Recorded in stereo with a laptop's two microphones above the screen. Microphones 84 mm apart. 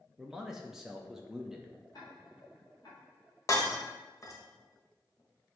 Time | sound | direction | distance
0.2 | a man speaking | 5° right (ahead or behind) | 0.5 m
1.9 | ticking | 50° left (ahead or behind) | 1.5 m
3.5 | breaking glass | 40° left (ahead or behind) | 1.0 m